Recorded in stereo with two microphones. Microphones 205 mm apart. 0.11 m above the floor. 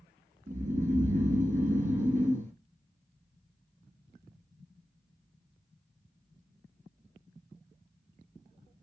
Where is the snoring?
40° right (ahead or behind), 0.9 m.